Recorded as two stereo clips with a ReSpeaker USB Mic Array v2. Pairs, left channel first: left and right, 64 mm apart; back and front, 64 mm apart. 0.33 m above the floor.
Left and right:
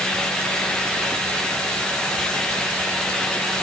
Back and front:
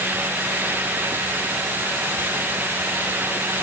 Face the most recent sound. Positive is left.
No sound to turn to.